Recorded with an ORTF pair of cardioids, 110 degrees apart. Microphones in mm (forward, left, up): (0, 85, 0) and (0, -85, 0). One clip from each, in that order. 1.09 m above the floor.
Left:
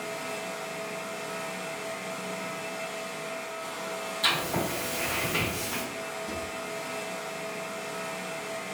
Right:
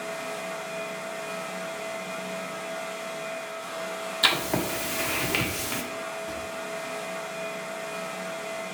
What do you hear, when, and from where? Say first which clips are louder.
0.0 s a fan: right 1 dB; 5° right, 0.9 m
4.2 s writing: right 3 dB; 55° right, 0.9 m
6.3 s a drawer: right 1 dB; straight ahead, 1.3 m